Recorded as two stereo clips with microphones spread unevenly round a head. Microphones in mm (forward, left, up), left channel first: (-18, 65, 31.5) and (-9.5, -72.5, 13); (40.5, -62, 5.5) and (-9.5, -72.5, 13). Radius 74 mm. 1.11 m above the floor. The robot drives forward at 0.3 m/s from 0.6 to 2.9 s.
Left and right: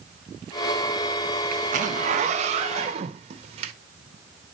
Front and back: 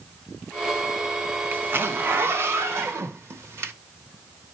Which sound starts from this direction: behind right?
A zipper, at 1.5 s.